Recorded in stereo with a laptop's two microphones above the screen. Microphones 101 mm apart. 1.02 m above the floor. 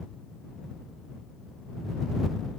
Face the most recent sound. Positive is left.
No sound to turn to.